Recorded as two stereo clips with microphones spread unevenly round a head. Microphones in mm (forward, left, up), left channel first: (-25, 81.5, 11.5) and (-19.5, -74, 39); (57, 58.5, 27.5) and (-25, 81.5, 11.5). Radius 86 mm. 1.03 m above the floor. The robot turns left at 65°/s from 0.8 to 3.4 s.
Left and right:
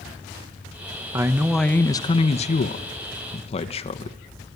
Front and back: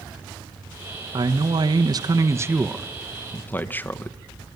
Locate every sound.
1.1 s a man speaking: 160° right, 0.9 m; by 4.2 s 55° left, 0.9 m